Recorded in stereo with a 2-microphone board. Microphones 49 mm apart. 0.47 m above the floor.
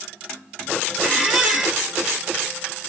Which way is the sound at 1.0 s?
5° right (ahead or behind).